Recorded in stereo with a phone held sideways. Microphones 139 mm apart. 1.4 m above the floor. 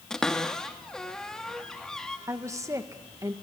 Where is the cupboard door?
5° left (ahead or behind), 1.6 m.